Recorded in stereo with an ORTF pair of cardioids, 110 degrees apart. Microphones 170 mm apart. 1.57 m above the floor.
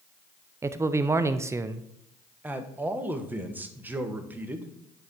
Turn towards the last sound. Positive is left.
turn(degrees=-10)